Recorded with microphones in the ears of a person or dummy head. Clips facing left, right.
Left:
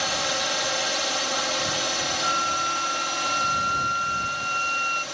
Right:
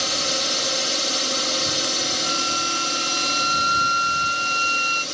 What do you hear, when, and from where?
0.0 s a drone: 50° right (ahead or behind)
2.2 s a flute: 70° right (ahead or behind)